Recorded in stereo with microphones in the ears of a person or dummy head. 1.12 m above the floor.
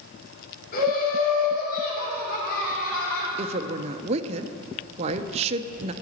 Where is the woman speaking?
30° right (ahead or behind), 0.6 m.